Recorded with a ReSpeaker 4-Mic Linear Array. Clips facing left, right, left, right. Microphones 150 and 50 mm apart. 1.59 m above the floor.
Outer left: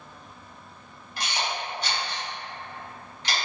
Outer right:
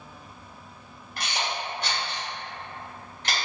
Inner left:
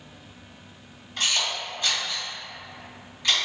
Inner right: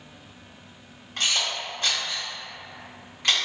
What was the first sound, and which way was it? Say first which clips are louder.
A camera shutter: even, even; 50° right (ahead or behind).